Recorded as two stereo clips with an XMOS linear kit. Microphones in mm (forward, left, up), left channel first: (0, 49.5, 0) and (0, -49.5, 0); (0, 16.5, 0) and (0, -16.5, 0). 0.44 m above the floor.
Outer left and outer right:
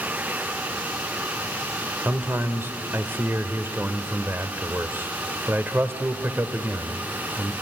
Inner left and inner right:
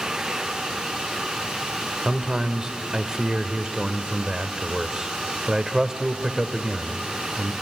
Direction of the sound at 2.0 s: 20° right (ahead or behind).